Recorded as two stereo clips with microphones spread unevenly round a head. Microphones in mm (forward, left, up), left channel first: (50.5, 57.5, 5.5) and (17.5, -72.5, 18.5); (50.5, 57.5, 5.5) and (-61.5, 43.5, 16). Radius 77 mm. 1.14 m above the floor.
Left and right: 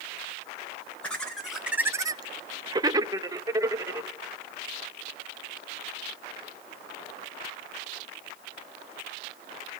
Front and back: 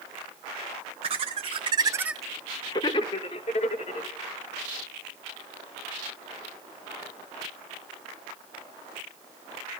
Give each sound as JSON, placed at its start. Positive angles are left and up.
{"t": 1.0, "sound": "laughter", "azimuth_deg": 155, "distance_m": 1.2}